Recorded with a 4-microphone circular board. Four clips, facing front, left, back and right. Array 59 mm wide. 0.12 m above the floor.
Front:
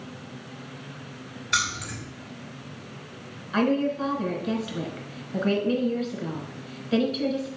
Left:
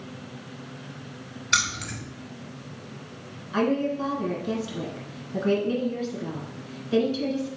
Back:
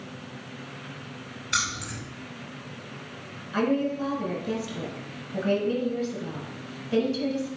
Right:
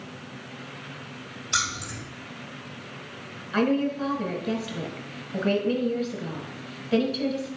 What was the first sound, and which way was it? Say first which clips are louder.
Keys jangling: left 3 dB, front 2 dB; 75° left.